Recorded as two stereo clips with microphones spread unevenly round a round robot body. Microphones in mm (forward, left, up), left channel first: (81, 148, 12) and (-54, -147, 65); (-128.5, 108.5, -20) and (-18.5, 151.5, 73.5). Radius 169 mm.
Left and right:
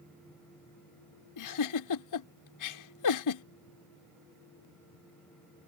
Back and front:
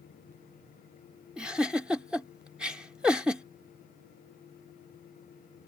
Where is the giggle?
100° left.